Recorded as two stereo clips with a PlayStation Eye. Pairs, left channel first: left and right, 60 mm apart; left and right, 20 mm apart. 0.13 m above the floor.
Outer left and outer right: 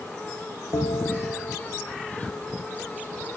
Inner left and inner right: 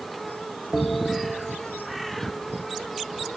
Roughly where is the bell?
Left.